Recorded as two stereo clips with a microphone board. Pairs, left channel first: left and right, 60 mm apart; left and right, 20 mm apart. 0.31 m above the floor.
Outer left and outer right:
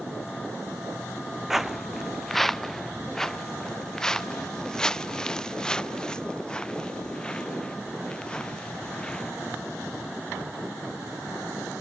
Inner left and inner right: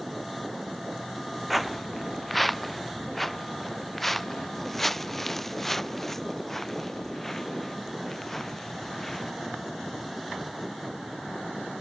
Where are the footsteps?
5° right (ahead or behind); by 9.3 s 15° left (ahead or behind).